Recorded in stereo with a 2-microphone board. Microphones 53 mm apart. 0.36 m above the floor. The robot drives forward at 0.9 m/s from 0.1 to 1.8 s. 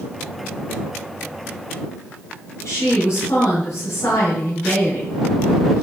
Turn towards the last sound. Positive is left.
turn(degrees=70)  # may be behind; listen again after turning